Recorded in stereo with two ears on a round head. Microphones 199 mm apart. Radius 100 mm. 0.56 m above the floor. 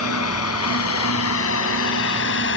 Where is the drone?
75° left (ahead or behind); by 2.6 s 55° left (ahead or behind).